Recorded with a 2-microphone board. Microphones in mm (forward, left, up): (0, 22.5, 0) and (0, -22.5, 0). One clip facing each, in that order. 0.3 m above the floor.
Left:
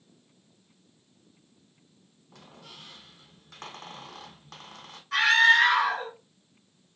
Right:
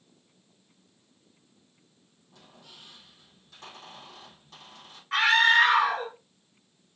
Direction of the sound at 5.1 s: 30° right (ahead or behind).